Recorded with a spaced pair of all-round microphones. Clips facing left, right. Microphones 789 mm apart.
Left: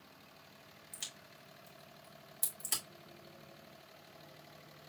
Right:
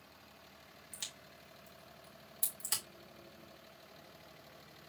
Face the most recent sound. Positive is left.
turn(degrees=-25)  # may be behind; listen again after turning